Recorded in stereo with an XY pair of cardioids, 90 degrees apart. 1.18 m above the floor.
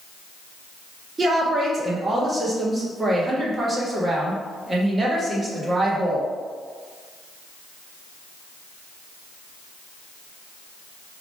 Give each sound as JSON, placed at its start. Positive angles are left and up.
{"t": 1.2, "sound": "a woman speaking", "azimuth_deg": -35, "distance_m": 1.4}